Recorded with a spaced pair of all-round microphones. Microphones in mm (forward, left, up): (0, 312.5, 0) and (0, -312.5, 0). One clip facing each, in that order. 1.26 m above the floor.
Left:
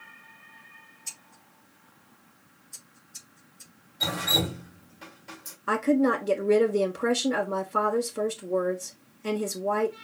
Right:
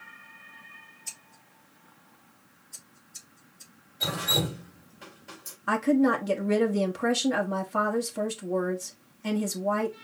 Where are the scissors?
45° left (ahead or behind), 3 m.